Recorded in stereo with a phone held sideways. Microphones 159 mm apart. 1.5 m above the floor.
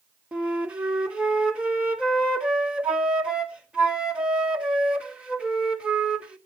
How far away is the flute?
About 1.2 m.